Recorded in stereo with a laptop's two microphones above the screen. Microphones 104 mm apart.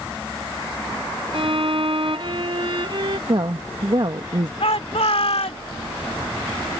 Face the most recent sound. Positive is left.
turn(degrees=80)